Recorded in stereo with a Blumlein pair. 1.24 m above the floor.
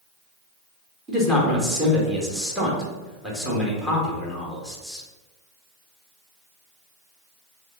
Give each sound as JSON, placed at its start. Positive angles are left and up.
{"t": 1.1, "sound": "a man speaking", "azimuth_deg": -5, "distance_m": 1.8}